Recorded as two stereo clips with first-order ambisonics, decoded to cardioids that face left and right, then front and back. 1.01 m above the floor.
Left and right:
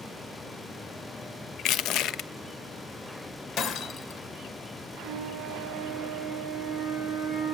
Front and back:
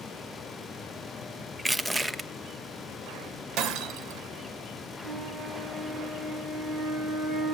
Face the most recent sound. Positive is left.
turn(degrees=-135)